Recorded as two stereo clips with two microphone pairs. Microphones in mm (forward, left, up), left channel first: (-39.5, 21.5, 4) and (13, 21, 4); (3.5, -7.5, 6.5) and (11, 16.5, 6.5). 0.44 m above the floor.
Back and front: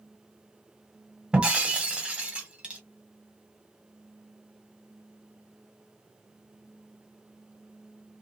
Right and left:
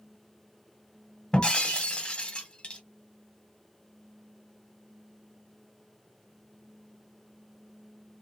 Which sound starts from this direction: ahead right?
Breaking glass, at 1.3 s.